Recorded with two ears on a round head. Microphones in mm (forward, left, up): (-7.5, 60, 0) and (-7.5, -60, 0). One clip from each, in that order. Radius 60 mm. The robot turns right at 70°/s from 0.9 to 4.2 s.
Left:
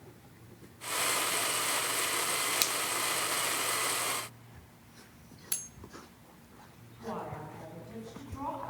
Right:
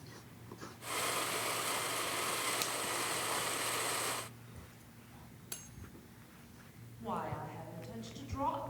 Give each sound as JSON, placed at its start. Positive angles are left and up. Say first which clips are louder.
{"t": 2.6, "sound": "a finger snap", "louder": "left 6 dB", "side_deg": 45, "distance_m": 0.6}
{"t": 5.5, "sound": "cutlery clinking", "louder": "left 9 dB", "side_deg": 40, "distance_m": 1.2}
{"t": 7.0, "sound": "a woman speaking", "louder": "even", "side_deg": -70, "distance_m": 10.0}